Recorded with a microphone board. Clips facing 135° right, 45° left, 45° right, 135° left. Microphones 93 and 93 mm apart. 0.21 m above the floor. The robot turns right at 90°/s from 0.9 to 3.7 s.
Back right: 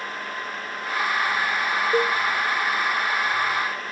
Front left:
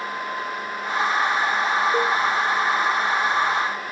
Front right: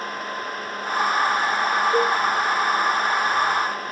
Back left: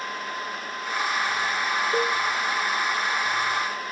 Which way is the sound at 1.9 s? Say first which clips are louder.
Front left 1 dB, front right 3 dB; 130° right.